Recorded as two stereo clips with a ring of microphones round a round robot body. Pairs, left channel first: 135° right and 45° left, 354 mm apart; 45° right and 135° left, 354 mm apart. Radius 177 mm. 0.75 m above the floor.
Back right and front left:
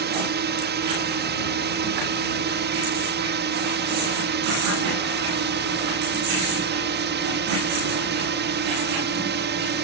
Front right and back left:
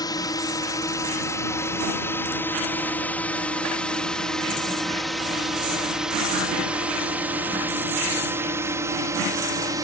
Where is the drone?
25° left; by 9.8 s 65° left.